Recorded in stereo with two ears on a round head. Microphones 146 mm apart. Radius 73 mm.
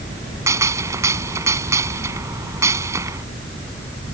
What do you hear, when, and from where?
0.5 s a gunshot: 20° right (ahead or behind)